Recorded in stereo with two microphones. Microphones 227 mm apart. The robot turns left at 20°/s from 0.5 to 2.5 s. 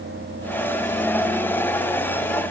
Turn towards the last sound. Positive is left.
No sound to turn to.